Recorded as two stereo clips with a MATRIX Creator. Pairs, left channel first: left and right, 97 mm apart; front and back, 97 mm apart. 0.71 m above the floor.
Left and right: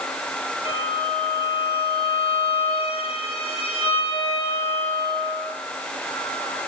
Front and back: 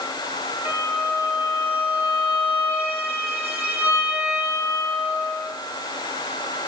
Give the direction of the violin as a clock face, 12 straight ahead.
8 o'clock.